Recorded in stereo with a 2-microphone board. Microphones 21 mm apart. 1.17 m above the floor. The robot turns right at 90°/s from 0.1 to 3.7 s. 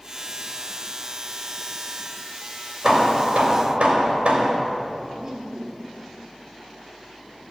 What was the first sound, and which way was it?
Hammering, 140° right.